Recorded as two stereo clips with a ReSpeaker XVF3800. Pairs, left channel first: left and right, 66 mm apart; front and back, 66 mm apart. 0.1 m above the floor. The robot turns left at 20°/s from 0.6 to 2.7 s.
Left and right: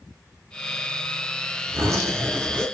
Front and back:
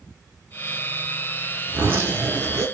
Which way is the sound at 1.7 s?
120° right.